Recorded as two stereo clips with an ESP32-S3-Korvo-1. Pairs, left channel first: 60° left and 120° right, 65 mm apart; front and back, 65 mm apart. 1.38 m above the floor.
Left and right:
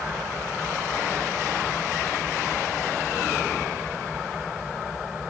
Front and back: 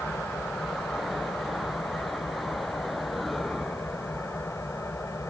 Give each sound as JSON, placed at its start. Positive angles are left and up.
{"t": 0.0, "sound": "an engine running", "azimuth_deg": -35}